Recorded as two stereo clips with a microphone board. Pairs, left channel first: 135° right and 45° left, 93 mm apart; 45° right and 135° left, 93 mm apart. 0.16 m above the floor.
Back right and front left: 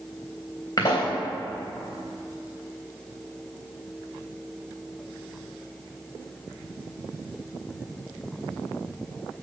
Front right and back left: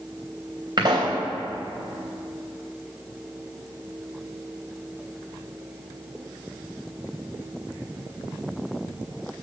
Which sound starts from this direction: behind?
A pop, at 0.8 s.